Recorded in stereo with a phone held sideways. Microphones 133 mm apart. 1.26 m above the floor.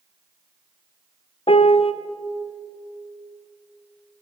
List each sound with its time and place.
1.5 s a piano: 45° left (ahead or behind), 0.8 m